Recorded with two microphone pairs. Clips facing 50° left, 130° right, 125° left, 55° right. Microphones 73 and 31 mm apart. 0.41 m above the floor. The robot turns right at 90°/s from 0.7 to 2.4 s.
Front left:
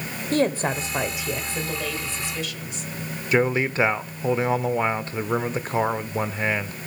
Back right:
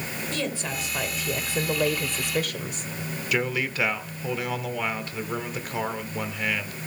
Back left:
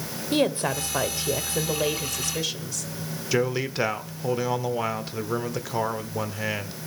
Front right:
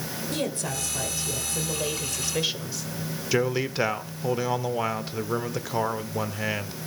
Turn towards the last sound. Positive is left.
turn(degrees=35)